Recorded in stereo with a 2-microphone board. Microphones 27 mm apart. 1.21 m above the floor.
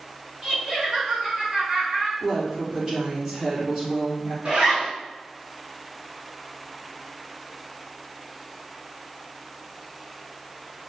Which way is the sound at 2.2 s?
20° right (ahead or behind).